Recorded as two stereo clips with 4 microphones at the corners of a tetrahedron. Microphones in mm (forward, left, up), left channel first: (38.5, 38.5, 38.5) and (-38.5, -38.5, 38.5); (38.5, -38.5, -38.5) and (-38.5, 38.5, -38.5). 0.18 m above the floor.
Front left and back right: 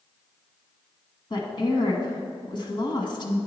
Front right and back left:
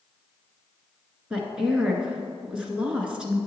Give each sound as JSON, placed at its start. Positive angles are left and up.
{"t": 1.3, "sound": "a woman speaking", "azimuth_deg": 60, "distance_m": 1.5}